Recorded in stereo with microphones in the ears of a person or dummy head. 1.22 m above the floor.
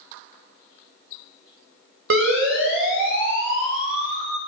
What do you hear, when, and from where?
2.1 s a siren: 75° right (ahead or behind), 7 m; by 4.4 s 65° right (ahead or behind), 7.5 m